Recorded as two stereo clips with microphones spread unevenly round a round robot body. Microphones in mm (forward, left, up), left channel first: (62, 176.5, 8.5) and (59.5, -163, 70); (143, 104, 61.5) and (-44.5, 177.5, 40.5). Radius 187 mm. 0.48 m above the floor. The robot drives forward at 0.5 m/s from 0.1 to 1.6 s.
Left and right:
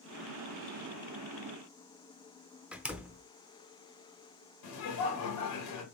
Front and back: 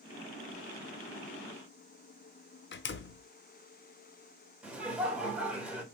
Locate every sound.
2.7 s a door slam: 5° left, 0.6 m
4.6 s laughter: 80° left, 2.5 m